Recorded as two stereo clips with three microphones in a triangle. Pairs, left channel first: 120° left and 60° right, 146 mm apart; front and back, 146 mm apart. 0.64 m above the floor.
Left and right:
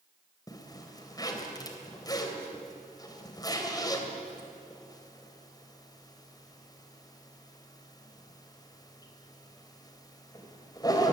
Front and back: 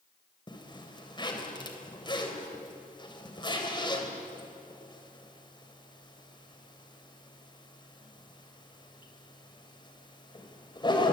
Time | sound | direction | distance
0.5 | a zipper | 60° left | 3.5 m